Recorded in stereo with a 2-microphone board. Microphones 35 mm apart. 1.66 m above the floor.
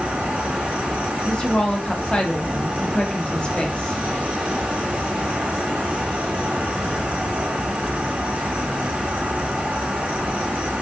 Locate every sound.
0.0 s an insect: 35° right (ahead or behind), 0.9 m
1.2 s a woman speaking: 30° left (ahead or behind), 0.8 m